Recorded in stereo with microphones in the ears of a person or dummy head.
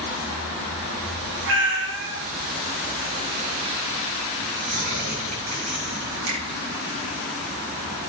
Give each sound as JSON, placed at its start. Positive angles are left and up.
{"t": 1.5, "sound": "a cat meowing", "side_deg": -65, "distance_m": 1.8}
{"t": 4.4, "sound": "tearing paper", "side_deg": -50, "distance_m": 4.5}
{"t": 6.3, "sound": "a finger snap", "side_deg": -80, "distance_m": 4.5}